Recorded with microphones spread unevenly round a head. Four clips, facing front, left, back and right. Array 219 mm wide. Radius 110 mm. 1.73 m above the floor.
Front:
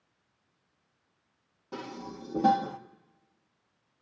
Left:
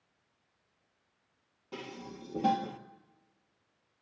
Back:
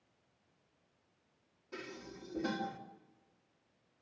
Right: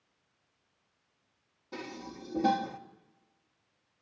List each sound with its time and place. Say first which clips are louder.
1.7 s dishes clattering: right 1 dB, front 8 dB; 5° left, 1.8 m